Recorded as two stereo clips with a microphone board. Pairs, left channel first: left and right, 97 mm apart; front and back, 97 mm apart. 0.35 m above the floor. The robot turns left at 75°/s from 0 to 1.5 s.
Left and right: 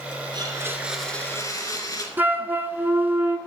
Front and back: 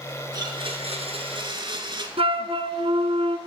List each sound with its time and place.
0.3 s a blender: 130° right, 2 m; by 2.1 s 140° left, 2 m
2.2 s a flute: 160° right, 1.0 m